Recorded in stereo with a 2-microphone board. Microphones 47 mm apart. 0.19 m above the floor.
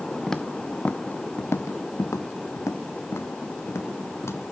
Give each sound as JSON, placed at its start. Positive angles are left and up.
{"t": 0.3, "sound": "footsteps", "side_deg": 10, "distance_m": 0.8}